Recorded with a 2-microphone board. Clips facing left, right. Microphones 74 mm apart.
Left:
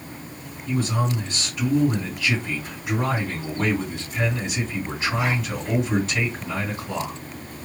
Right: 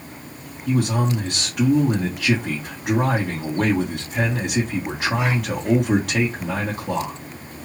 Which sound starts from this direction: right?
A man speaking, at 0.7 s.